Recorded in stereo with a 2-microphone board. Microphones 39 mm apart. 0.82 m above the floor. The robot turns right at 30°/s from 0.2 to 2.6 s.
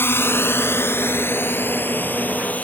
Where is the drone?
75° left (ahead or behind); by 2.6 s 45° left (ahead or behind).